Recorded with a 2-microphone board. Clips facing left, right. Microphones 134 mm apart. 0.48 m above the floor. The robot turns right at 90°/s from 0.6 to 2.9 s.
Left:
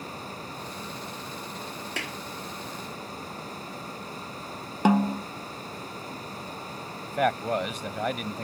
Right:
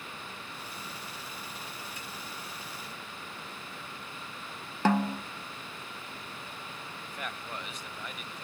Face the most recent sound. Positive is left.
turn(degrees=70)  # may be behind; listen again after turning